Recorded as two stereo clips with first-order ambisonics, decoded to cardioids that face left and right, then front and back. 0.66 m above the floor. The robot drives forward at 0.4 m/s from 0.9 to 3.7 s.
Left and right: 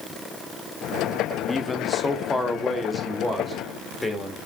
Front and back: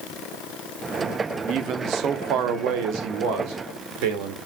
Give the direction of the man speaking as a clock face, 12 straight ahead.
7 o'clock.